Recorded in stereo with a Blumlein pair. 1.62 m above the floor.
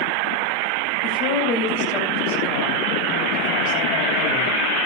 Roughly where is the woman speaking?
Ahead left.